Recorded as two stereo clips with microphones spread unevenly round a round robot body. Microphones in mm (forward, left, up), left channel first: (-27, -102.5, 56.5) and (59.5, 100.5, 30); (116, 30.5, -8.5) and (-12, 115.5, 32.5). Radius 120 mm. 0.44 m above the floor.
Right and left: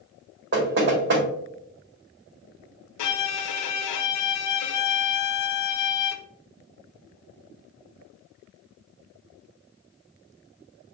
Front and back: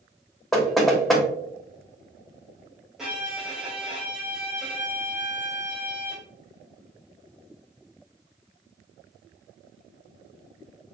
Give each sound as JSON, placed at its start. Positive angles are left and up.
{"t": 0.5, "sound": "knocking", "azimuth_deg": 50, "distance_m": 1.3}
{"t": 3.0, "sound": "a violin", "azimuth_deg": -125, "distance_m": 0.5}